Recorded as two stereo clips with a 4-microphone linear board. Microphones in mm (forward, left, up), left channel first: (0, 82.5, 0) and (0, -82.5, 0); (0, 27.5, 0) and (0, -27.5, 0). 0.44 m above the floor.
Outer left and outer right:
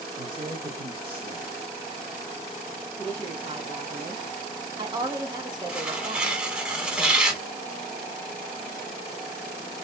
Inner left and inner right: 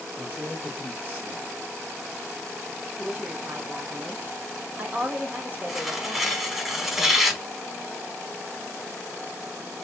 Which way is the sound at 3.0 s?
30° right (ahead or behind).